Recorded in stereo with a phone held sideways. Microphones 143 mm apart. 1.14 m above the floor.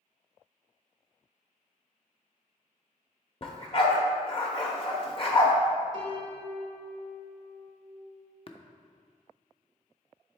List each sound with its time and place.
3.4 s a dog barking: 40° left (ahead or behind), 0.9 m
5.9 s a piano: 25° left (ahead or behind), 1.3 m
8.5 s tapping: 40° left (ahead or behind), 0.5 m